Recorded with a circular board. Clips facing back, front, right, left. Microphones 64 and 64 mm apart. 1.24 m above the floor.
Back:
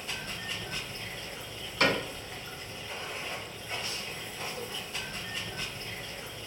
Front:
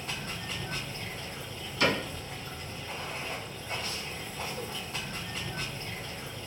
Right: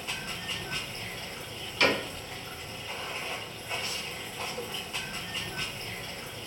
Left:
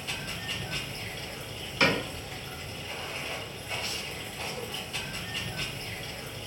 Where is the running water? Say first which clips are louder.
Front 1 dB, even; 30° right, 1.6 m.